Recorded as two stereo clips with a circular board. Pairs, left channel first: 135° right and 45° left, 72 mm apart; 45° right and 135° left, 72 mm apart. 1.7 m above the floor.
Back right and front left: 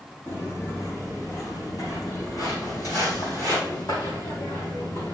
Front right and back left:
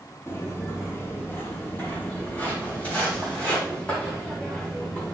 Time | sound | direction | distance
0.3 | footsteps | 95° right | 3 m